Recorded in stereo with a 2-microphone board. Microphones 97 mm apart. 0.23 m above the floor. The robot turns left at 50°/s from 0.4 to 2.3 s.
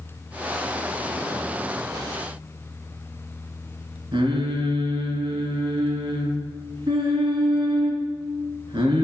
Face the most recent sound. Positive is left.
turn(degrees=-55)  # may be behind; listen again after turning